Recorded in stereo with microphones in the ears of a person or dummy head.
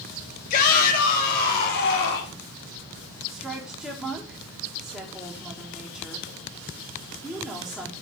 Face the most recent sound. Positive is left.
turn(degrees=0)  # may be behind; listen again after turning